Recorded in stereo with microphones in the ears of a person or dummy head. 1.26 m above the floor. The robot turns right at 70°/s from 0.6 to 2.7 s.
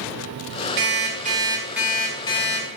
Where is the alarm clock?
75° right, 1.0 m; by 2.7 s 55° left, 1.0 m.